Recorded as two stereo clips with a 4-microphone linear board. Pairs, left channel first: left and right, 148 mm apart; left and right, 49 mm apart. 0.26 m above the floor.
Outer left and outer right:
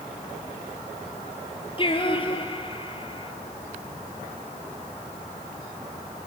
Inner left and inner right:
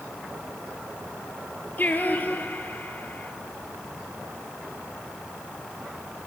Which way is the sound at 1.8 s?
35° left (ahead or behind).